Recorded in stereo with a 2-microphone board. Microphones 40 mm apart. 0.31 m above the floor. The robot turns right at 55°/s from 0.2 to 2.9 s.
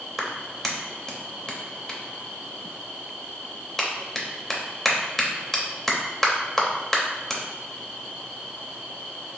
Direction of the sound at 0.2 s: Centre (ahead or behind).